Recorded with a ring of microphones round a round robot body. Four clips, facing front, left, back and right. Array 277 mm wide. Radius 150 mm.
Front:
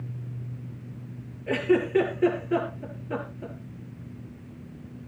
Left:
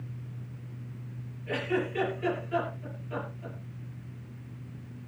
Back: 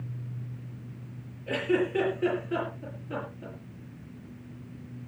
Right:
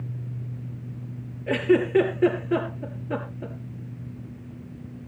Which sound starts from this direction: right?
A giggle, at 1.5 s.